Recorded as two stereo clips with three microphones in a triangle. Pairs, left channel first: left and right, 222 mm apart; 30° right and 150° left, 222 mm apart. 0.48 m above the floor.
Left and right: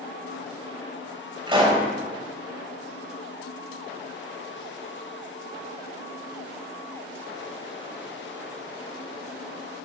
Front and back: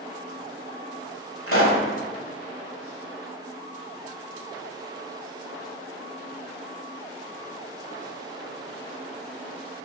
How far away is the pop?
About 1.5 m.